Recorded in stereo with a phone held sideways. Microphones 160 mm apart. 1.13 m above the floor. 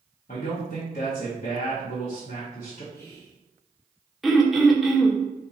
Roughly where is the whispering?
Centre.